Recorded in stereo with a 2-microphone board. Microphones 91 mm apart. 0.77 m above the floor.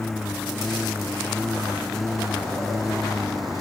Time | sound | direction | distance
0.0 | a lawn mower | 5° left (ahead or behind) | ?